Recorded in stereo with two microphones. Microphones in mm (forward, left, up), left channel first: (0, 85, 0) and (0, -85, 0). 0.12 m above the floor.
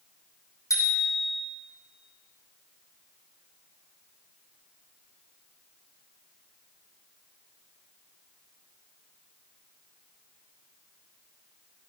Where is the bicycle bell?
20° left (ahead or behind), 4 m.